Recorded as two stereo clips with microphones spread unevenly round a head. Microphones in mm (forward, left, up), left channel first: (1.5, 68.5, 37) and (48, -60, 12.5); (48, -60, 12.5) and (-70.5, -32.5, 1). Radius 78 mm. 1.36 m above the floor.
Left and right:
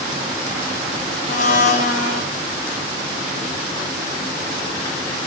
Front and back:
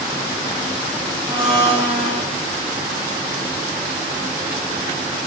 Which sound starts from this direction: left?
A blender, at 1.3 s.